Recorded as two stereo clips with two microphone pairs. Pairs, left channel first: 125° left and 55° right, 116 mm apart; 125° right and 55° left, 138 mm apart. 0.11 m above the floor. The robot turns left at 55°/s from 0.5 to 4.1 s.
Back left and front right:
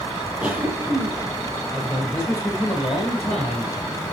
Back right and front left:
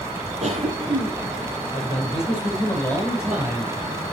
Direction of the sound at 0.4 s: 25° left.